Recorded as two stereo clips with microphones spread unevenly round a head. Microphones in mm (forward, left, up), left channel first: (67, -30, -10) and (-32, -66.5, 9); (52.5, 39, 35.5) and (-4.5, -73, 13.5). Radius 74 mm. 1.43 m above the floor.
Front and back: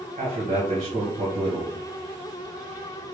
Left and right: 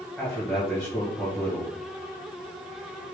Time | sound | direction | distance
0.2 | a man speaking | 145° left | 1.7 m